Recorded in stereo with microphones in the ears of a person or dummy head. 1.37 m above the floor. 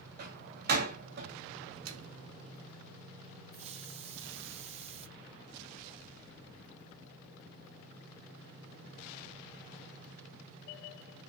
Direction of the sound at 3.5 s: 35° right (ahead or behind).